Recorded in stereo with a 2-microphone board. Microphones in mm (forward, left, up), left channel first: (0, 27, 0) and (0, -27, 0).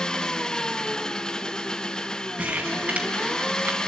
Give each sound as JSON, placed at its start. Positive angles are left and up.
{"t": 0.0, "sound": "an engine running", "side_deg": 15, "distance_m": 0.8}
{"t": 2.4, "sound": "crumpling", "side_deg": -30, "distance_m": 3.0}